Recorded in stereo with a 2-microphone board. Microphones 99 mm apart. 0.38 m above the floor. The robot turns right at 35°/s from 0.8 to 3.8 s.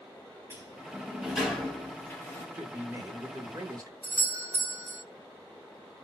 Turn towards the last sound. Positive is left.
turn(degrees=-20)  # may be behind; listen again after turning